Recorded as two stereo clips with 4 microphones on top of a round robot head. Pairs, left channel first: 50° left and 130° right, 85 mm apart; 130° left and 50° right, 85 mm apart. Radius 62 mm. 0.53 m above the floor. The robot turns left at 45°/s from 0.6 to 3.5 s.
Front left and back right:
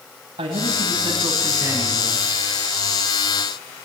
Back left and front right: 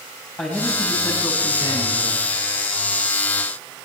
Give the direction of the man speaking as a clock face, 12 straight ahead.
5 o'clock.